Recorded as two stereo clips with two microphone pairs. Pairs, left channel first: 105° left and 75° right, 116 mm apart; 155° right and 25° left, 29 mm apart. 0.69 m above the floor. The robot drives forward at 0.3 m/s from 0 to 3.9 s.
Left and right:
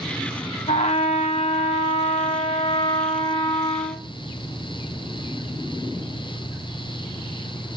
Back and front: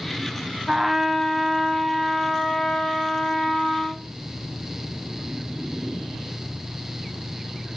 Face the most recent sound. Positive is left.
turn(degrees=135)